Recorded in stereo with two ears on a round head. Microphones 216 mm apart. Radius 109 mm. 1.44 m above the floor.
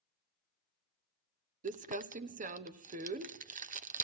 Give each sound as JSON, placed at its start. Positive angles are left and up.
{"t": 1.6, "sound": "crumpling", "side_deg": -35, "distance_m": 0.9}